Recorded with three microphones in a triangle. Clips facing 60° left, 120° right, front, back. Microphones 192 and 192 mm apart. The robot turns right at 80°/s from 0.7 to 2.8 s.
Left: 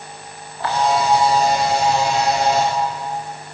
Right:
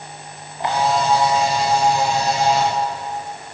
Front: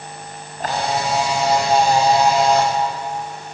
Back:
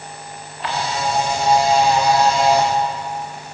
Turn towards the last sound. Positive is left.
turn(degrees=120)